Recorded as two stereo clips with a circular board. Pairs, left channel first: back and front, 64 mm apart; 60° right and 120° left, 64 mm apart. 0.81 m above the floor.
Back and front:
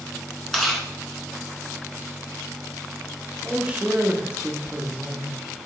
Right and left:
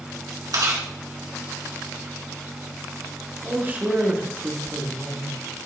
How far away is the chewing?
About 2.5 m.